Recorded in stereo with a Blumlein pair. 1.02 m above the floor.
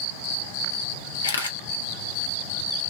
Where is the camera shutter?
65° left, 0.7 m.